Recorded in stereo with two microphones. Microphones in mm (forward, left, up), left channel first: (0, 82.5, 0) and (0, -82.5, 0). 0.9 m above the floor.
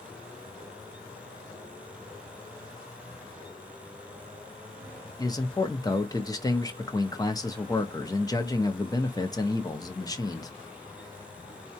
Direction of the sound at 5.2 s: 20° left (ahead or behind).